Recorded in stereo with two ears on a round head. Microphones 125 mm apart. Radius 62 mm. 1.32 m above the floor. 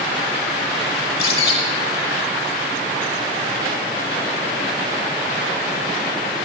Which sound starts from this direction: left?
A bird, at 1.0 s.